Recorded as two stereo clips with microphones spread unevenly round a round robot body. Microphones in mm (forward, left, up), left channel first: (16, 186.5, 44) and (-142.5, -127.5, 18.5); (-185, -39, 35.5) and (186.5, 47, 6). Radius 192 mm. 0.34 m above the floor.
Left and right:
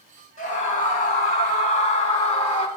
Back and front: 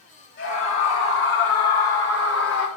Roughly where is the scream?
Behind left.